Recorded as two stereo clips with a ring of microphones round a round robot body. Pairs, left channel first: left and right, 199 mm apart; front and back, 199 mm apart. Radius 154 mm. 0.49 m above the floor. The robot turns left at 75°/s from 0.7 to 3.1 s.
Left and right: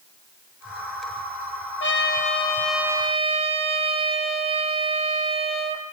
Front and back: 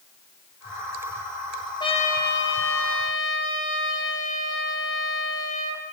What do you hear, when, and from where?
1.8 s a trumpet: 70° left, 5 m; by 5.8 s 30° right, 5 m